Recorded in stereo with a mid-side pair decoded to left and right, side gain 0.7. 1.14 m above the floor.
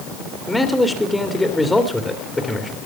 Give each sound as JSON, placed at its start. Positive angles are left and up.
{"t": 0.5, "sound": "a man speaking", "azimuth_deg": 10, "distance_m": 2.5}